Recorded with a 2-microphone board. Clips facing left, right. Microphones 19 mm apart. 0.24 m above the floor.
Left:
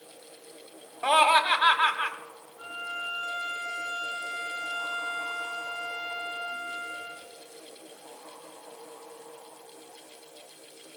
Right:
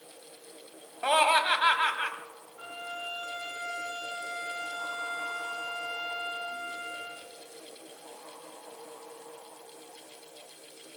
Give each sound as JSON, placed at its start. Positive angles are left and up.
{"t": 1.0, "sound": "laughter", "side_deg": 5, "distance_m": 1.0}
{"t": 2.6, "sound": "a violin", "side_deg": -90, "distance_m": 3.5}